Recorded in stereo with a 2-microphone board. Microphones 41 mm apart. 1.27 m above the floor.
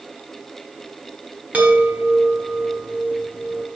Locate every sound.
1.5 s a chime: 35° right (ahead or behind), 1.6 m